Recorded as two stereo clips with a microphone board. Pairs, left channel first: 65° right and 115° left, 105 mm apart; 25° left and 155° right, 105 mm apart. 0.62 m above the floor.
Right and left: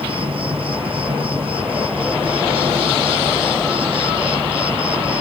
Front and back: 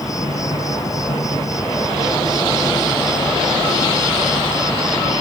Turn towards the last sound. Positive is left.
turn(degrees=80)